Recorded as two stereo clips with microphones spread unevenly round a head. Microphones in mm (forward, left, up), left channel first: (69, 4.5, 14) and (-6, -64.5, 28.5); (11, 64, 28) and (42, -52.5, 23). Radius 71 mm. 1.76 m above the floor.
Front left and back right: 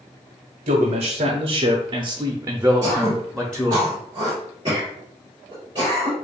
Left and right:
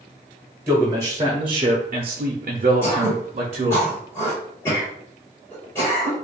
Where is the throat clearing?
170° left, 2 m.